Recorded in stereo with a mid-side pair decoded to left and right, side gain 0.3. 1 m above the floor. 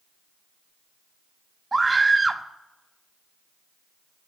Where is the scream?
30° right, 2.0 m.